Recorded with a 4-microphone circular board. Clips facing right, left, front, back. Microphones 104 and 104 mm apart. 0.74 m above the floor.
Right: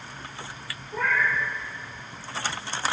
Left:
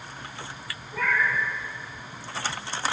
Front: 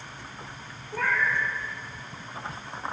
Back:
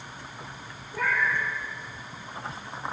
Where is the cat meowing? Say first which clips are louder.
Even, even; 25° right, 6 m.